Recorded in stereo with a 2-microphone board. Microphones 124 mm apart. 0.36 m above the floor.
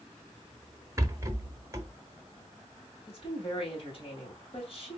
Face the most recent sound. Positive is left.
turn(degrees=45)  # may be behind; listen again after turning